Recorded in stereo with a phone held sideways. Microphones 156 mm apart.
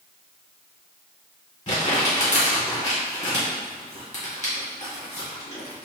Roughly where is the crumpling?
Left.